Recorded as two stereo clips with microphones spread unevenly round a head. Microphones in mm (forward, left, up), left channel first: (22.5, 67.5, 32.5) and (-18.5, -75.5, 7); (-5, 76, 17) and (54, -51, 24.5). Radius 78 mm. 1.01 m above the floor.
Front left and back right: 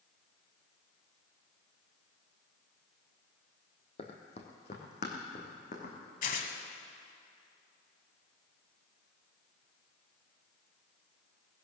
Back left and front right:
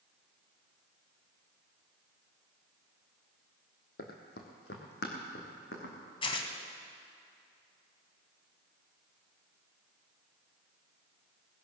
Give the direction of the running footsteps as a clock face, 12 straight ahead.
8 o'clock.